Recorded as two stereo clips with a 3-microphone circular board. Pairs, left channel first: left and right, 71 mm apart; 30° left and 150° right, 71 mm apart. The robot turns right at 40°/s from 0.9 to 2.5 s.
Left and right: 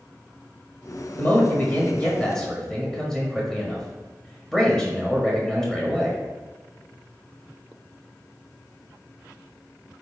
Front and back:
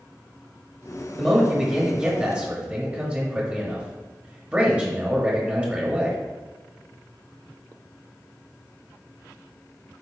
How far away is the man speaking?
About 1.2 m.